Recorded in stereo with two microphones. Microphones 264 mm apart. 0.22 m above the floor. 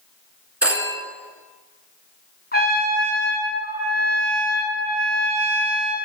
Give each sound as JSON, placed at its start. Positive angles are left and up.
{"t": 0.6, "sound": "a phone ringing", "side_deg": -65, "distance_m": 1.8}
{"t": 2.5, "sound": "a trumpet", "side_deg": 35, "distance_m": 3.0}